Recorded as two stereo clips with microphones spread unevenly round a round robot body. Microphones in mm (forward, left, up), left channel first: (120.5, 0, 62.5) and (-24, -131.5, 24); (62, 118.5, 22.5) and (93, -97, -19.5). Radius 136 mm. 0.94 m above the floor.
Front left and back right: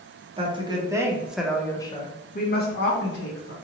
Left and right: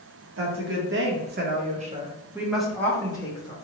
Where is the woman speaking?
80° right, 1.1 m; by 3.5 s 30° left, 1.0 m.